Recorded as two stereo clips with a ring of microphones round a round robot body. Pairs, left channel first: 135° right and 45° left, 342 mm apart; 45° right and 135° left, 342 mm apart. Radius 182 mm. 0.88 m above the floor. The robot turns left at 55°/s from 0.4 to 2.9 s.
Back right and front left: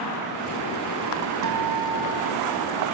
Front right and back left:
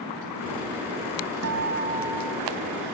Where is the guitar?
90° left; by 2.5 s 30° left.